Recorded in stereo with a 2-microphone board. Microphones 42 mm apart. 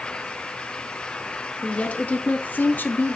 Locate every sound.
1.6 s a woman speaking: 35° left (ahead or behind), 2 m; by 3.2 s 40° left (ahead or behind), 1.1 m